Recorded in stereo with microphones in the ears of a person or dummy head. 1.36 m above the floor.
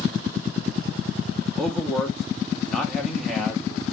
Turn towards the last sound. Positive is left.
turn(degrees=5)  # may be behind; listen again after turning